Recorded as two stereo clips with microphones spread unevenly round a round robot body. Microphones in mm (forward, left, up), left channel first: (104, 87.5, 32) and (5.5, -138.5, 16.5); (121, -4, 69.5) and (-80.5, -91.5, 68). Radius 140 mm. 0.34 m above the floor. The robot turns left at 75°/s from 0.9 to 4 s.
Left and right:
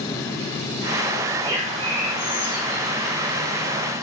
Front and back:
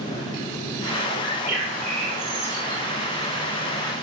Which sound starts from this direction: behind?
A bird, at 1.2 s.